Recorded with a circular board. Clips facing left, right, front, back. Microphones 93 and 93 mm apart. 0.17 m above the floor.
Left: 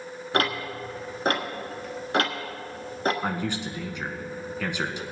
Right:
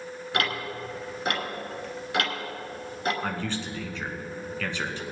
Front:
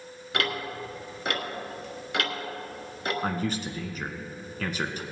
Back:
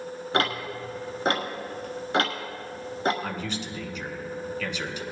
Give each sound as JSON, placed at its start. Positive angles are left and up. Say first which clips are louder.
{"t": 0.3, "sound": "ticking", "louder": "left 3 dB, back 3 dB", "azimuth_deg": 135, "distance_m": 1.4}
{"t": 3.2, "sound": "a man speaking", "louder": "left 2 dB, front 3 dB", "azimuth_deg": 20, "distance_m": 1.5}